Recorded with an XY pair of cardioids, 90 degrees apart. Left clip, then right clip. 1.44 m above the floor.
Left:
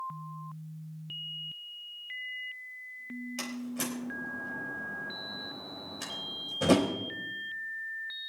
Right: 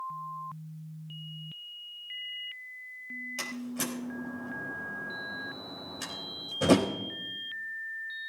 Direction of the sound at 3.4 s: 5° right.